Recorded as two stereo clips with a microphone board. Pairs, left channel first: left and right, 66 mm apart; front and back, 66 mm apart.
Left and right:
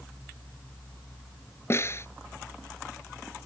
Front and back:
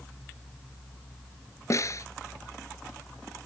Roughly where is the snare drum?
Ahead left.